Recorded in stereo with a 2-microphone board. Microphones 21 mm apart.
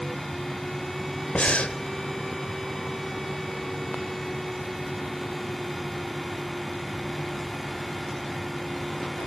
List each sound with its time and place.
1.4 s breathing: 85° left, 0.7 m